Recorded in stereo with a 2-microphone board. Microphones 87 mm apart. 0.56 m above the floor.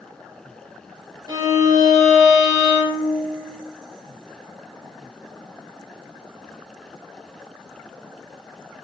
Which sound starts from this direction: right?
A violin, at 1.3 s.